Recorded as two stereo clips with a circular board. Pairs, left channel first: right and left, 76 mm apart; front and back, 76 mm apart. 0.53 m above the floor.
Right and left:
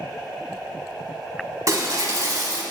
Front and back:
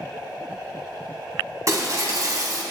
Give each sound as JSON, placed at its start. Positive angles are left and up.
{"t": 1.7, "sound": "breaking glass", "azimuth_deg": 130, "distance_m": 1.4}